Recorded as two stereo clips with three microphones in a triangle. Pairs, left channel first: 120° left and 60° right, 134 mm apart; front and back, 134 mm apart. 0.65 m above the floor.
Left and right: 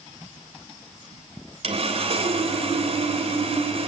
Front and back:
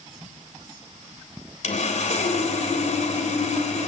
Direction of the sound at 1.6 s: 25° right.